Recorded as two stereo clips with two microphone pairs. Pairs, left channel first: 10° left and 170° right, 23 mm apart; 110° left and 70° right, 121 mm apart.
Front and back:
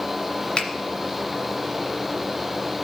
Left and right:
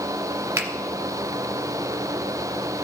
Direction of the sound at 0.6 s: 5° right.